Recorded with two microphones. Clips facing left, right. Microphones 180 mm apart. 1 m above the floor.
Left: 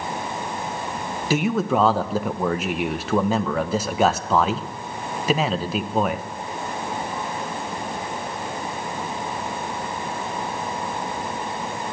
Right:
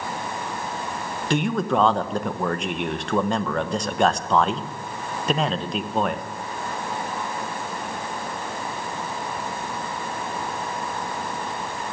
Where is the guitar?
I don't hear a guitar.